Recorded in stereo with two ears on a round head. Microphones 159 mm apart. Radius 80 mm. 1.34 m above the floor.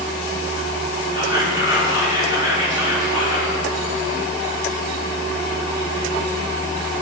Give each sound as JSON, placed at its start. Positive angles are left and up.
{"t": 1.1, "sound": "whispering", "side_deg": -20, "distance_m": 4.5}